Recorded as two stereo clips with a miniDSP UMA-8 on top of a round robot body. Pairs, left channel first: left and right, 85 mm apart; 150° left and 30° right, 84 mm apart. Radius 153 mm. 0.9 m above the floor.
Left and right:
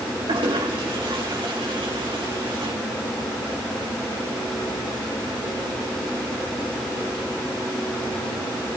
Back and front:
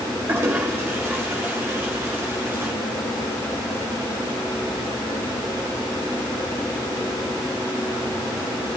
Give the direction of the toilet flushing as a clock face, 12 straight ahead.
3 o'clock.